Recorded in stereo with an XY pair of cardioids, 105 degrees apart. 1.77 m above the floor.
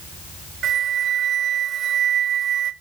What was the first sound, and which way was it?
A flute, 65° right.